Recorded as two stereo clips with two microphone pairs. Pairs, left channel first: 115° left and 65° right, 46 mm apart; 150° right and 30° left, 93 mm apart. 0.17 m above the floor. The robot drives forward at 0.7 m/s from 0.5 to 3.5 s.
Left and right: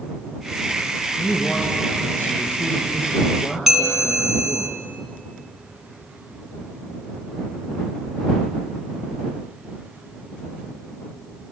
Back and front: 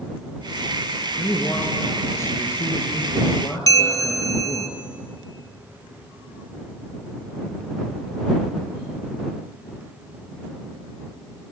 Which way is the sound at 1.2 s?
145° left.